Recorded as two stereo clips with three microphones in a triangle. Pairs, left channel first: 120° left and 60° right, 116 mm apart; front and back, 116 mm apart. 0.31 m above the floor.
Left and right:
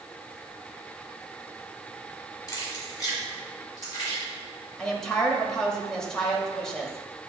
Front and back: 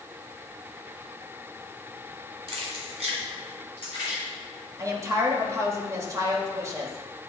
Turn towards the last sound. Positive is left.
turn(degrees=-160)